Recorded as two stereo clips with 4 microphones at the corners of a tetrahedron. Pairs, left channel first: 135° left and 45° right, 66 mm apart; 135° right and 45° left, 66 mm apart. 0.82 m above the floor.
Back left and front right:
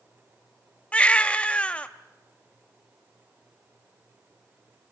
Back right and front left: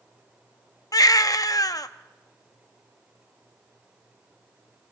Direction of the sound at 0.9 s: 155° right.